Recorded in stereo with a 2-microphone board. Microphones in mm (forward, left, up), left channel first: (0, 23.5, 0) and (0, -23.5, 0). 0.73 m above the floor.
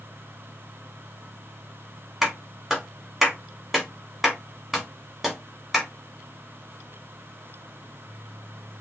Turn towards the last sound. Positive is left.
turn(degrees=-5)  # may be behind; listen again after turning